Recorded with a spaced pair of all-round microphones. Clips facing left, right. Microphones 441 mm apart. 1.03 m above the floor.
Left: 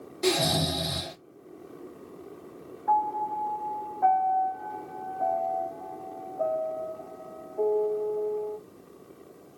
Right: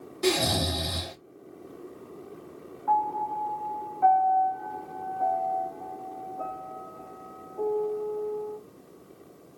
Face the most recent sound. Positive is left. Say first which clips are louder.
# even
turn(degrees=-20)  # may be behind; listen again after turning